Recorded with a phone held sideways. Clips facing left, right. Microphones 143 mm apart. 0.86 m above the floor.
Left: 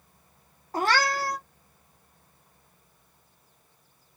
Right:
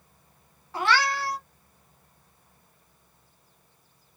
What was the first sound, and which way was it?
A cat meowing, 40° left (ahead or behind).